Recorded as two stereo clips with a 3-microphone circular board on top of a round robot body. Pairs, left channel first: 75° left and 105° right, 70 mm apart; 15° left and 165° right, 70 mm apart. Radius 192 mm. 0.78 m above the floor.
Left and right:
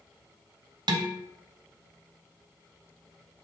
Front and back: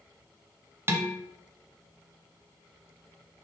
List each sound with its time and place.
0.9 s dishes clattering: 110° right, 0.5 m